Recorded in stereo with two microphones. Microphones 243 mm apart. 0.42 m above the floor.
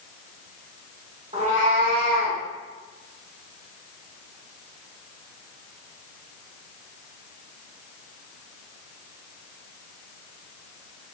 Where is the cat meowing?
25° right (ahead or behind), 0.7 m; by 2.4 s 35° right (ahead or behind), 0.7 m.